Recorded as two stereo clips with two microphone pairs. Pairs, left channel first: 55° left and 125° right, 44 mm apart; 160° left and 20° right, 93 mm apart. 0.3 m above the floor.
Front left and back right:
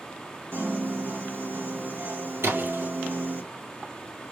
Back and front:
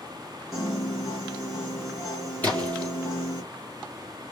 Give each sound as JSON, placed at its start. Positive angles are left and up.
{"t": 0.5, "sound": "a piano", "azimuth_deg": -105, "distance_m": 2.5}
{"t": 2.4, "sound": "a splash", "azimuth_deg": -130, "distance_m": 3.5}